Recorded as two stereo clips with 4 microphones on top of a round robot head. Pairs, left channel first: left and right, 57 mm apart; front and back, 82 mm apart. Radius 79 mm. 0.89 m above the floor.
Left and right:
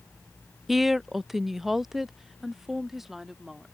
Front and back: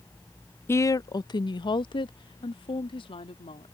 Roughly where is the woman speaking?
Ahead.